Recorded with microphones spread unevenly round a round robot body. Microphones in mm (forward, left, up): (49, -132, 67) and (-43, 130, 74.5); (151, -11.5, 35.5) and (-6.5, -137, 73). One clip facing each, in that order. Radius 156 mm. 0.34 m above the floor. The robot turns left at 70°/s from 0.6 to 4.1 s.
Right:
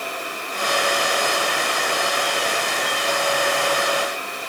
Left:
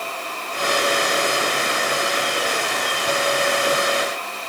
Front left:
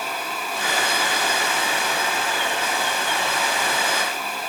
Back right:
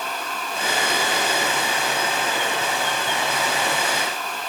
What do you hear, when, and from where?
Only background noise.